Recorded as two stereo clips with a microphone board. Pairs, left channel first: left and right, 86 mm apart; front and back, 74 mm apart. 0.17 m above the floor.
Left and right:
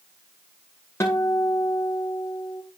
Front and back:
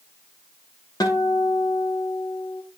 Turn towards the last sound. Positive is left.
turn(degrees=30)